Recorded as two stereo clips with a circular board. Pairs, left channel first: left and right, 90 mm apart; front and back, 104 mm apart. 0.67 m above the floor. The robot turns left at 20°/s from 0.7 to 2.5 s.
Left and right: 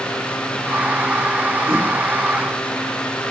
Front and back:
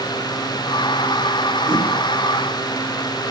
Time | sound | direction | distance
1.7 | a whoosh | 155° right | 2.5 m